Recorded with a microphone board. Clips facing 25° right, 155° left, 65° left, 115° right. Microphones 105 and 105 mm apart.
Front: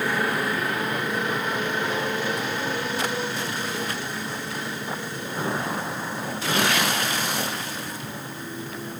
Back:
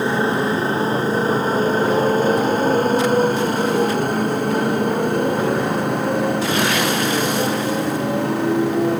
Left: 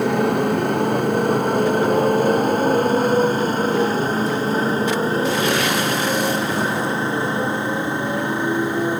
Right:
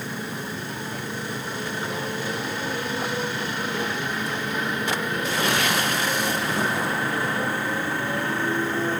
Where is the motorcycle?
95° left; by 9.0 s 140° left.